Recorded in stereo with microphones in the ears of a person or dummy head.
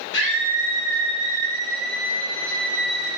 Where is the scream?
70° left (ahead or behind), 1.9 m; by 3.1 s 75° left (ahead or behind), 3.5 m.